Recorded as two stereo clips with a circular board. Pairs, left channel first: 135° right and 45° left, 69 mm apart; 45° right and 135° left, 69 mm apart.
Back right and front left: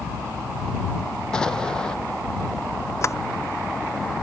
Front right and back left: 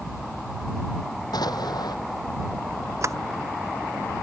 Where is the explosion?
55° right.